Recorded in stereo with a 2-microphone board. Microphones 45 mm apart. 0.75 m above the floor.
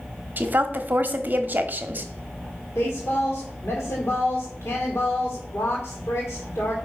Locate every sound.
0.4 s a woman speaking: 45° right (ahead or behind), 1.2 m
2.8 s a woman speaking: 70° left (ahead or behind), 2 m